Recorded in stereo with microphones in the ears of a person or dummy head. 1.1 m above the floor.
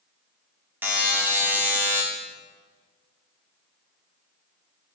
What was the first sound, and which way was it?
A buzzer, 5° right (ahead or behind).